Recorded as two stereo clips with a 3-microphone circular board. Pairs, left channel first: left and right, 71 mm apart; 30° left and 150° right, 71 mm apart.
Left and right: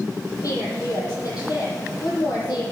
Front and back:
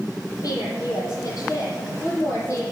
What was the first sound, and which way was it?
A woman speaking, 55° left.